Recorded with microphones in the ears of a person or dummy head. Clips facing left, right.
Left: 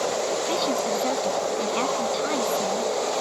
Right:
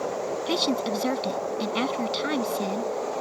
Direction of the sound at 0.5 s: 20° right (ahead or behind).